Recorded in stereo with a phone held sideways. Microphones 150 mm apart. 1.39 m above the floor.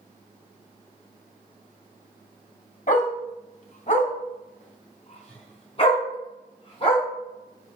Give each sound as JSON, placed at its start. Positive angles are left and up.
{"t": 2.9, "sound": "a dog barking", "side_deg": 55, "distance_m": 2.5}